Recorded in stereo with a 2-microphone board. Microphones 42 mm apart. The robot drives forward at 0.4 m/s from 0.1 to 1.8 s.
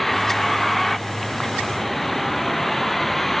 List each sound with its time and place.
0.0 s a vehicle: 5° left (ahead or behind)